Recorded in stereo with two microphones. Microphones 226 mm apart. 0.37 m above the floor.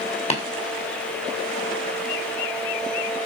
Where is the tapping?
25° left (ahead or behind), 2.5 m.